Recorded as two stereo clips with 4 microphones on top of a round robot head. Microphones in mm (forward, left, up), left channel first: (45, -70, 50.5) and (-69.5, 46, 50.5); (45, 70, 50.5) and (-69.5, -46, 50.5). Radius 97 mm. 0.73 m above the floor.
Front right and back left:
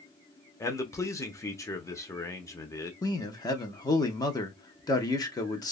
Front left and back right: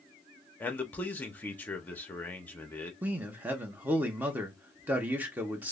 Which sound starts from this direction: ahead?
A man speaking, at 0.6 s.